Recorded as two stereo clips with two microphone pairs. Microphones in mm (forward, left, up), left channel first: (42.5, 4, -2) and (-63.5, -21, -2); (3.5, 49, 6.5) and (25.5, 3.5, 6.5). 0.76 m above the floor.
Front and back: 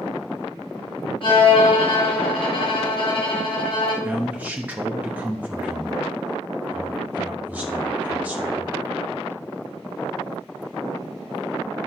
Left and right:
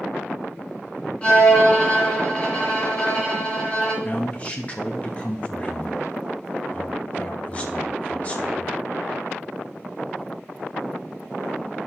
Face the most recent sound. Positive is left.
turn(degrees=135)